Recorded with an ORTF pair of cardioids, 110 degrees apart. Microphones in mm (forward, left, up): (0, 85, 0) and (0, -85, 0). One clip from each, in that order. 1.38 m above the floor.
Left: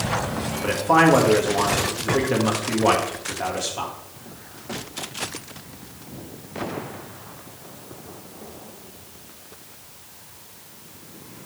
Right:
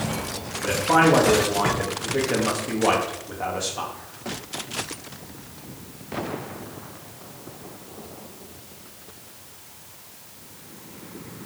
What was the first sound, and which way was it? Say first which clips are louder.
A man speaking: left 1 dB; 10° left.